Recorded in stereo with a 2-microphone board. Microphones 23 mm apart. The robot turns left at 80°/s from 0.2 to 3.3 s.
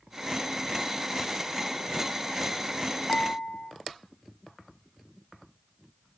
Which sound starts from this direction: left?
Dishes clattering, at 3.1 s.